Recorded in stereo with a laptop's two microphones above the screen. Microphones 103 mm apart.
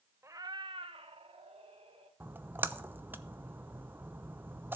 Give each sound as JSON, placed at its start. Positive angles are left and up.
{"t": 0.2, "sound": "a cat meowing", "side_deg": -25, "distance_m": 0.5}
{"t": 2.2, "sound": "a splash", "side_deg": -20, "distance_m": 0.7}